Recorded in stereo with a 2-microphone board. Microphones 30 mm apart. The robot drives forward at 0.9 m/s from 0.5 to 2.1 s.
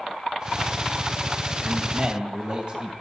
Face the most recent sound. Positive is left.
turn(degrees=-30)  # may be behind; listen again after turning